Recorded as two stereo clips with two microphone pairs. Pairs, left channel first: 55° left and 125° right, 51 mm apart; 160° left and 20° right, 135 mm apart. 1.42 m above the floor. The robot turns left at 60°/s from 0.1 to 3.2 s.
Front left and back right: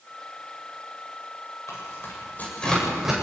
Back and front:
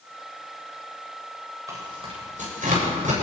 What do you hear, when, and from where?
1.7 s tearing paper: 45° left, 8 m; by 3.1 s 45° right, 8 m